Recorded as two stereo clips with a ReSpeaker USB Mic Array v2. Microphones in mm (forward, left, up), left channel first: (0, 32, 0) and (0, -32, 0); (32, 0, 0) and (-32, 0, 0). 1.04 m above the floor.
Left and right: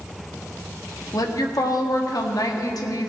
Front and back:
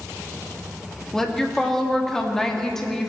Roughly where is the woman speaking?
Left.